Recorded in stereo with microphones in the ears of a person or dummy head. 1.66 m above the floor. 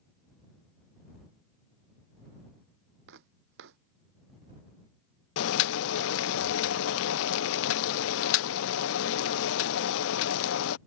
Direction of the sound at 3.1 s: 60° right (ahead or behind).